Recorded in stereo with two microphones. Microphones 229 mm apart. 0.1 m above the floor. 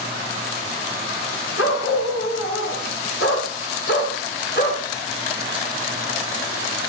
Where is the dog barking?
75° left (ahead or behind), 6.5 m; by 4.8 s 45° left (ahead or behind), 5 m.